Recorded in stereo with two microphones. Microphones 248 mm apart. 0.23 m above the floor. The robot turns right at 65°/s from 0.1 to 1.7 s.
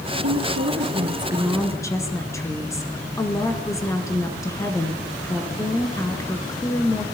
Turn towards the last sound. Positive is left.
turn(degrees=15)